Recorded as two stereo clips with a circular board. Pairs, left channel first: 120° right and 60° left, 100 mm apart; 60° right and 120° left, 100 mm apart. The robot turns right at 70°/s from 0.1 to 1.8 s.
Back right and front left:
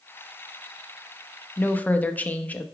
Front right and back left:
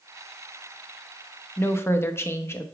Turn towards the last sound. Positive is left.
turn(degrees=-70)